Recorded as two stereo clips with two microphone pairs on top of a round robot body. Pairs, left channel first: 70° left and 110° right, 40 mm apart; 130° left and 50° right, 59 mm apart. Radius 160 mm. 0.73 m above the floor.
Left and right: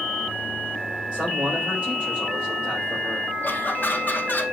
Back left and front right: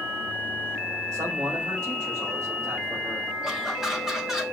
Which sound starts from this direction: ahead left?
Laughter, at 3.4 s.